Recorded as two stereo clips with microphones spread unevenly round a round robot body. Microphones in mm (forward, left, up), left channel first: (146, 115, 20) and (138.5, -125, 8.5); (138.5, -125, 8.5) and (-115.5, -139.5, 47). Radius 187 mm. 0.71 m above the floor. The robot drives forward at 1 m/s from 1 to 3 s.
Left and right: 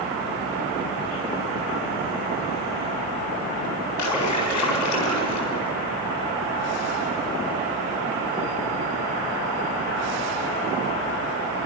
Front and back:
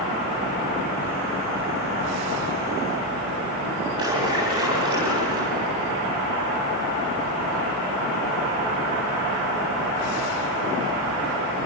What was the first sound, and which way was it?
A splash, 105° left.